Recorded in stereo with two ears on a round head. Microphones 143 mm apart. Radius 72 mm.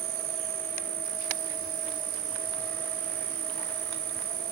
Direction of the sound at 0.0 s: 70° right (ahead or behind).